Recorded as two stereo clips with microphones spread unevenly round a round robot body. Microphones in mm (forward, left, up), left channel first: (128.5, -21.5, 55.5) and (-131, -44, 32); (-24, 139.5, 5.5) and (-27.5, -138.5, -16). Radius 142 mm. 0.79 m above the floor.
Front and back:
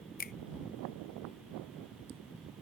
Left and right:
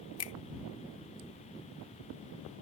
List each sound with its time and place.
0.2 s a finger snap: 60° left